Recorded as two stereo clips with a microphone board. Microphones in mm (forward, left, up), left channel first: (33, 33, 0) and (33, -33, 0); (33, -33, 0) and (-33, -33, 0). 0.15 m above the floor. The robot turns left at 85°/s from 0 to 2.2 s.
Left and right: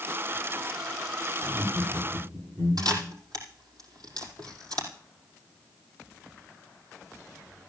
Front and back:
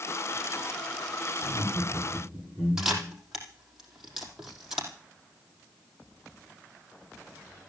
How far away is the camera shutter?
About 4.5 m.